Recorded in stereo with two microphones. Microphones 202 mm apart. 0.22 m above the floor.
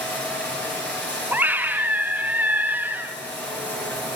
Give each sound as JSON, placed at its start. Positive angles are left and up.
{"t": 0.0, "sound": "running water", "side_deg": 10, "distance_m": 6.5}
{"t": 1.3, "sound": "a scream", "side_deg": -10, "distance_m": 1.3}